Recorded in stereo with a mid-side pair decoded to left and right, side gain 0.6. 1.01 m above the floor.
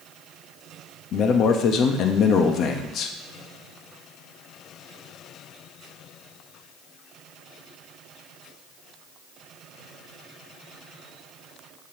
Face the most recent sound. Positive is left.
turn(degrees=55)